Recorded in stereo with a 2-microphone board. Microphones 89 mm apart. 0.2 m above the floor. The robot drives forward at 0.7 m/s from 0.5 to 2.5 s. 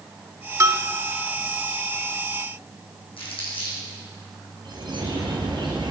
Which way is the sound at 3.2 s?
80° left.